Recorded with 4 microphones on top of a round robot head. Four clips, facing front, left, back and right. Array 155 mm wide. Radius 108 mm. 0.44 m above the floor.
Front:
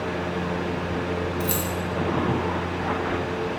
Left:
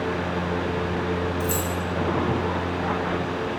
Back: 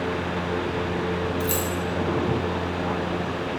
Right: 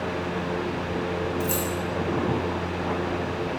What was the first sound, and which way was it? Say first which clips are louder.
Keys jangling: left 1 dB, back 1 dB; straight ahead.